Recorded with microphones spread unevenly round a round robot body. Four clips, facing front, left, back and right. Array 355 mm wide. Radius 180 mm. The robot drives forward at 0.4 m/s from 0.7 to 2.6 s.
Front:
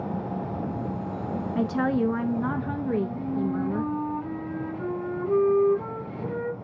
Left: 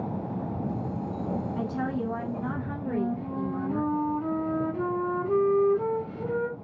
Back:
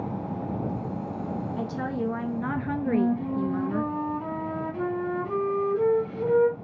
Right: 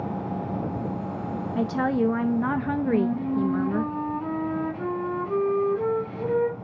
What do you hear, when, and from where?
1.6 s a woman speaking: 40° right, 0.6 m; by 3.9 s 90° right, 0.5 m
2.9 s a flute: 170° right, 2 m